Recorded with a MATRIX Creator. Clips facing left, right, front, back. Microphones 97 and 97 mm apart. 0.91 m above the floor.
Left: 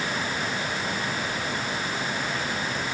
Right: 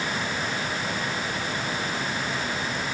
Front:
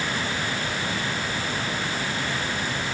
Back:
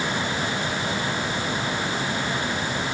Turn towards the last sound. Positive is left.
No sound to turn to.